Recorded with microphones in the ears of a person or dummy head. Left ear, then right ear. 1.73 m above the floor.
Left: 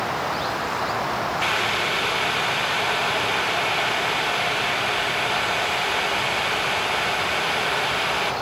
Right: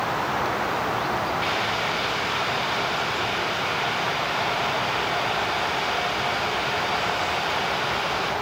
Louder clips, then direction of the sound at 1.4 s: Left 2 dB; 30° left (ahead or behind).